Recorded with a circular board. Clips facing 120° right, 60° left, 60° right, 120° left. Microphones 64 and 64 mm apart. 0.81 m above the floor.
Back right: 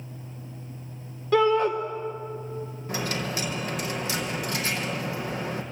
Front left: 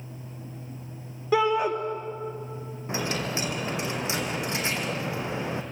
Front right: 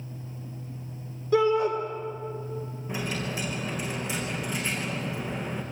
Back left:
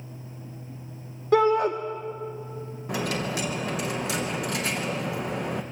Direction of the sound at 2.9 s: 125° left.